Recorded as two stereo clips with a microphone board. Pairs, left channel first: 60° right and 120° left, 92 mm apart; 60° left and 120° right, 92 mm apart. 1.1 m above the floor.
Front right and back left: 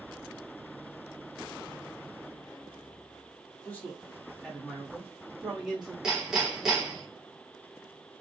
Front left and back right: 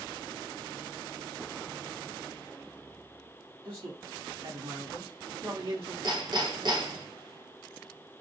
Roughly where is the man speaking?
Behind right.